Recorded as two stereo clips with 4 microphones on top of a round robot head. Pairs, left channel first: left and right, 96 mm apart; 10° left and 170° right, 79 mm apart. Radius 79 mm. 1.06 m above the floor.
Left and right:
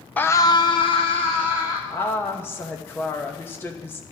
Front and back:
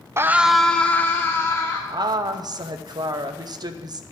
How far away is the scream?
About 0.7 m.